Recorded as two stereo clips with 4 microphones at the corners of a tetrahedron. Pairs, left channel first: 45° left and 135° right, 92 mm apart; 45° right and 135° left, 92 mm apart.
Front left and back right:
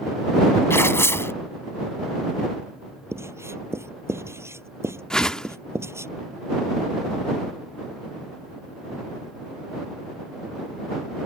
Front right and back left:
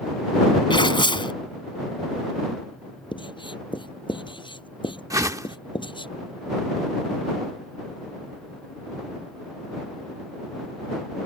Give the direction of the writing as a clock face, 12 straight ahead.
2 o'clock.